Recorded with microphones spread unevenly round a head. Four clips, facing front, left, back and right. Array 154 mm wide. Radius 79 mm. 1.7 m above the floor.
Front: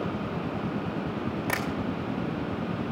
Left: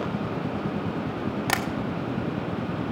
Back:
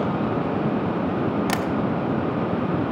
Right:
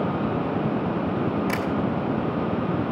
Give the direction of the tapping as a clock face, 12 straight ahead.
8 o'clock.